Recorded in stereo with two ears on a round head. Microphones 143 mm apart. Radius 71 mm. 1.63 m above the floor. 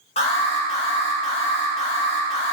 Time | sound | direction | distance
0.2 | an alarm | 40° left (ahead or behind) | 1.8 m